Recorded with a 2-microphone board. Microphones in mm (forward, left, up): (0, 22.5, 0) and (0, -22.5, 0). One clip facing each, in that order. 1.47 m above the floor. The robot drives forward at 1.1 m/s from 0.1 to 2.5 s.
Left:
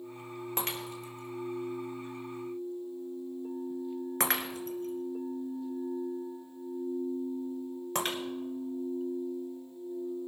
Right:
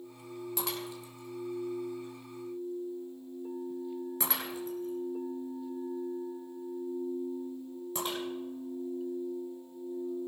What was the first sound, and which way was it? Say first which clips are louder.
Breaking glass: left 2 dB; 45° left (ahead or behind).